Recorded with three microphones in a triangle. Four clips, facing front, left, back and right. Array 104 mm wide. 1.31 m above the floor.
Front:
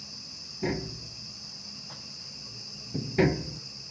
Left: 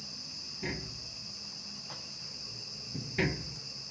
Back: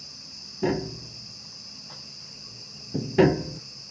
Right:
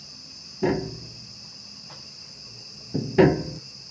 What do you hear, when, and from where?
0.6 s tapping: 115° right